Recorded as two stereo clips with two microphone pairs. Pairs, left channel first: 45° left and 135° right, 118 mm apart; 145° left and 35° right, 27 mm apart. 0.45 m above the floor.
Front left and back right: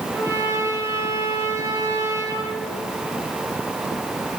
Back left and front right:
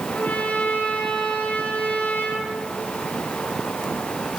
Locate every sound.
0.1 s a trumpet: 155° left, 5.5 m